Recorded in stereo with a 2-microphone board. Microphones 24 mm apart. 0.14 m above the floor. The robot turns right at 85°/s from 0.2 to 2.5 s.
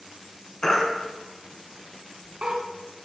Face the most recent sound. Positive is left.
turn(degrees=-45)  # may be behind; listen again after turning